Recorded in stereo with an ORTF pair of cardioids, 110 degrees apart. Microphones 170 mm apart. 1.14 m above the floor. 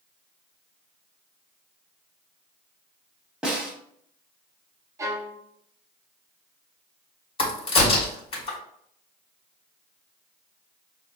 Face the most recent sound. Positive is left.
turn(degrees=35)